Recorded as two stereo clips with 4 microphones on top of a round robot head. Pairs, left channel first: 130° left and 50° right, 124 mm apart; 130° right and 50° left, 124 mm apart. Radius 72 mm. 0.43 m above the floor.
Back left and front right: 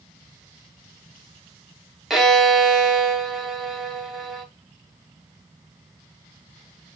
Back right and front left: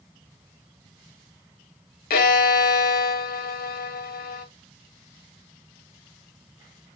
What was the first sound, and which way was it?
A violin, 140° right.